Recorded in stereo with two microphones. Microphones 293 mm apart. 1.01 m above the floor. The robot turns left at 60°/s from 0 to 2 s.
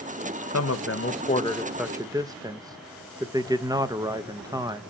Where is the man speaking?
75° left, 0.9 m; by 4.8 s 15° right, 0.9 m.